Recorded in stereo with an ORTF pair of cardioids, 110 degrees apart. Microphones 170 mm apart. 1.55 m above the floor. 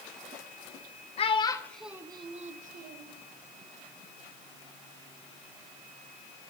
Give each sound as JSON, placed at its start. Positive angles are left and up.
{"t": 1.2, "sound": "a child speaking", "azimuth_deg": 40, "distance_m": 1.1}